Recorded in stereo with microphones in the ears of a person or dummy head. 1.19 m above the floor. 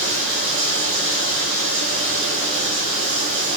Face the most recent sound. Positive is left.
turn(degrees=-65)  # may be behind; listen again after turning